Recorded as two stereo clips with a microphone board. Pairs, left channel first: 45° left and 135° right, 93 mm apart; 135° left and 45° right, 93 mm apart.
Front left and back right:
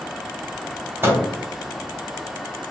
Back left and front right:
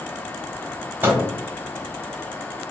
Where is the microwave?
95° right, 1.0 m.